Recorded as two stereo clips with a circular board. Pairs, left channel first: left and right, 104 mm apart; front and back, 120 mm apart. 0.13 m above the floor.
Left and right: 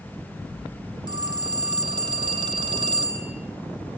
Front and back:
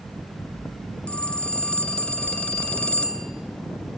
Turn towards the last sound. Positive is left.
turn(degrees=-80)